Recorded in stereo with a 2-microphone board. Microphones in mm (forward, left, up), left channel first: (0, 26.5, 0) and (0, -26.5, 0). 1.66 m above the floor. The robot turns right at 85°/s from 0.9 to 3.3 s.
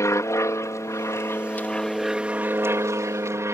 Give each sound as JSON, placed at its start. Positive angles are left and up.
{"t": 0.0, "sound": "an aircraft", "azimuth_deg": 85}